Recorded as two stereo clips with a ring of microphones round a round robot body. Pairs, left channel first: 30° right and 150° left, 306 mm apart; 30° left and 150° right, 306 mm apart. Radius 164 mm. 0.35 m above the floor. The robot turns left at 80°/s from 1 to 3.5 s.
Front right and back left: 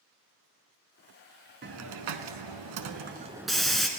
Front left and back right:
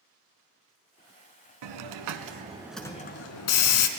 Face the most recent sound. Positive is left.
turn(degrees=60)